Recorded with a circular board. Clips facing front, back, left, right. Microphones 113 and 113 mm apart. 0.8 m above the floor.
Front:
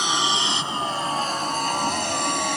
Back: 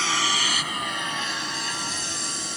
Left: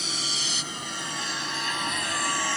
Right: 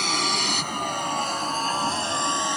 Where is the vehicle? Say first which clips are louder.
Front 3 dB, right 10 dB; 75° right; by 2.6 s 20° right.